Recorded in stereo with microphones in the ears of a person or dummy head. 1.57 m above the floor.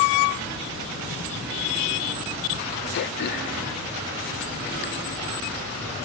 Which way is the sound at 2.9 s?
65° left (ahead or behind).